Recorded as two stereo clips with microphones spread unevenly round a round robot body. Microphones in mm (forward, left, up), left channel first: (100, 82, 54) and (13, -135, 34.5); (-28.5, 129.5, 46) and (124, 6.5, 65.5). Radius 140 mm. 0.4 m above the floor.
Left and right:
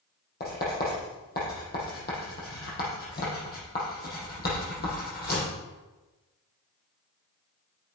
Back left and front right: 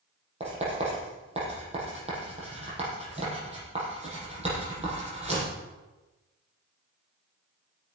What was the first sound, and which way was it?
Writing, 20° left.